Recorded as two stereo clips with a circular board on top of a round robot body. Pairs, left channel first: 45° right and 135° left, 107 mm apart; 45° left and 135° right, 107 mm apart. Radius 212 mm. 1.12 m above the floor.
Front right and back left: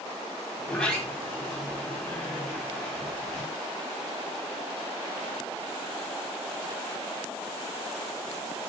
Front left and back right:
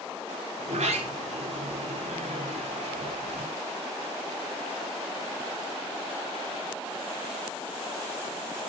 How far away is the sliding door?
About 5 m.